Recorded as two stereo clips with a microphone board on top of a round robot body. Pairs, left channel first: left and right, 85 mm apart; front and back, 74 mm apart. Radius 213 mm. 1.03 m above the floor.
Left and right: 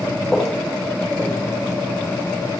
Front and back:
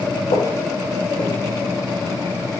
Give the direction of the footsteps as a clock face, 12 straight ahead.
12 o'clock.